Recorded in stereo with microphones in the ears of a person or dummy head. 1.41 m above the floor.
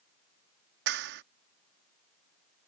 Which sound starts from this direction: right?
A clap, at 0.9 s.